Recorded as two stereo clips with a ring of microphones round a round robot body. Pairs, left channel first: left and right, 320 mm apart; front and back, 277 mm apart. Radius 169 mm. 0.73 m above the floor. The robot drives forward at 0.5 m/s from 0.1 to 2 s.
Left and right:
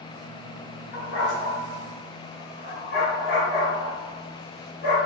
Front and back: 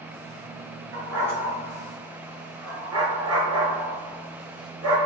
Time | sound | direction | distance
0.9 | a dog barking | 145° left | 2.5 m